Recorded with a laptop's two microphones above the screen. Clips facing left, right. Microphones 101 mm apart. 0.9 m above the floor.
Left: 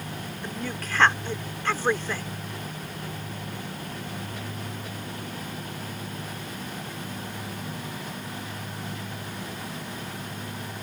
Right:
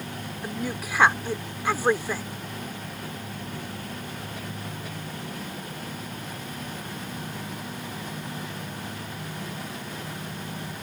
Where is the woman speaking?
10° right (ahead or behind).